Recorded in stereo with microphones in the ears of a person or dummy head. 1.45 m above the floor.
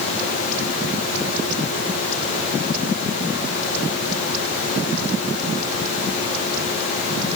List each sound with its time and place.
Only background noise.